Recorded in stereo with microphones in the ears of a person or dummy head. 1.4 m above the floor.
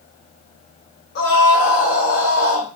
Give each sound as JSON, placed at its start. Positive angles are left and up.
{"t": 1.1, "sound": "a scream", "side_deg": 55, "distance_m": 2.0}